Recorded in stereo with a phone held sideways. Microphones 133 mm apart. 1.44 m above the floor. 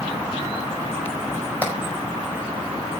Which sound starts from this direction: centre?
Hammering, at 1.6 s.